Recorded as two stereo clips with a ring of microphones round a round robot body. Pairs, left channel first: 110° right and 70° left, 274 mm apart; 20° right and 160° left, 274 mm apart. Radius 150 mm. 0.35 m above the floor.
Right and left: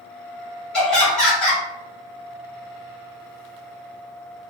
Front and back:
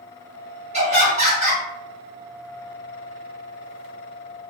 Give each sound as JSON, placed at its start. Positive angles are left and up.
{"t": 0.7, "sound": "laughter", "azimuth_deg": 165, "distance_m": 1.3}